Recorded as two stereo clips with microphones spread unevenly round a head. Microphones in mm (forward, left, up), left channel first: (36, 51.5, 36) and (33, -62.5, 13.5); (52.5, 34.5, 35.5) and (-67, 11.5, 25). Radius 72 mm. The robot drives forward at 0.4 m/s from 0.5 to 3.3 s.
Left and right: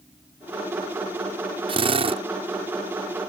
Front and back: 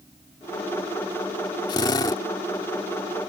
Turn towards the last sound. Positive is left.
turn(degrees=-60)